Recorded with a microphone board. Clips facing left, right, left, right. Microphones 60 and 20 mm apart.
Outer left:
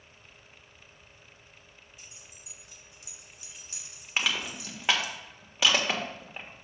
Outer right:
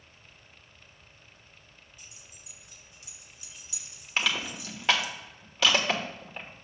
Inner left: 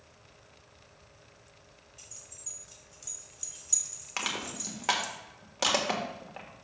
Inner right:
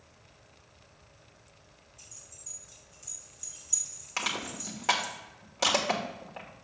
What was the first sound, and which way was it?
Keys jangling, 70° left (ahead or behind).